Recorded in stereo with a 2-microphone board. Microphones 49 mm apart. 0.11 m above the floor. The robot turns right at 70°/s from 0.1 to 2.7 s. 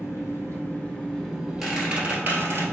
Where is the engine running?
90° left, 1.5 m; by 2.7 s 90° right, 1.5 m.